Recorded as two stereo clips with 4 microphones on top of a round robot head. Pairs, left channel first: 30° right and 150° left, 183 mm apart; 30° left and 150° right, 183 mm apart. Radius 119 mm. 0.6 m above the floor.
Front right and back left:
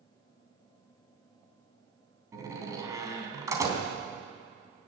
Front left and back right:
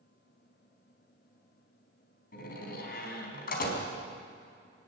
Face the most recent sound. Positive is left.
turn(degrees=75)